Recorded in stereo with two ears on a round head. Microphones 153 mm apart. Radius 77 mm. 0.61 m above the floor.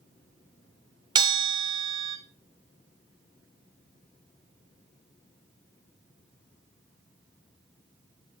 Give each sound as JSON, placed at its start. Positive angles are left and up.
{"t": 1.1, "sound": "a bell", "side_deg": -25, "distance_m": 1.3}